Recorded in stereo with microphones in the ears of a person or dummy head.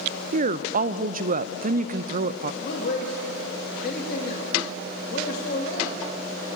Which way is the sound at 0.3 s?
40° right (ahead or behind).